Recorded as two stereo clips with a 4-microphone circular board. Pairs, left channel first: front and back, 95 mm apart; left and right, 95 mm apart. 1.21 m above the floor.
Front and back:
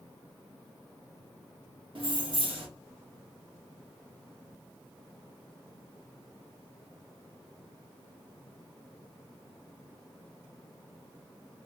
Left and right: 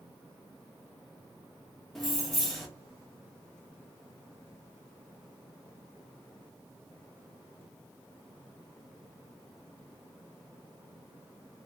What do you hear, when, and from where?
1.9 s keys jangling: straight behind, 0.7 m